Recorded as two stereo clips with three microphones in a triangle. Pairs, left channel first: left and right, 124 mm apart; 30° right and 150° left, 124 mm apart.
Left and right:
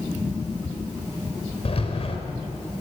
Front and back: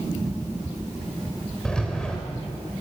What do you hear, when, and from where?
1.6 s a rattle: 55° left, 3.5 m